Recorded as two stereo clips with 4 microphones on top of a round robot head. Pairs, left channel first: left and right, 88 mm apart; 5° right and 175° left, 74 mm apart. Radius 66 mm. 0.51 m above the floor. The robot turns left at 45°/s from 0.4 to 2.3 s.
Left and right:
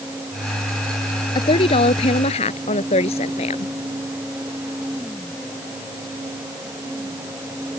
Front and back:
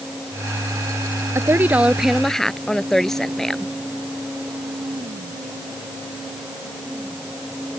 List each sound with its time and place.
1.4 s a woman speaking: 125° left; by 3.7 s 80° left